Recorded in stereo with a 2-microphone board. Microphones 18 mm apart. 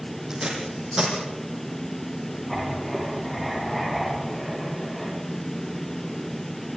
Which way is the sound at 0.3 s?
30° right (ahead or behind).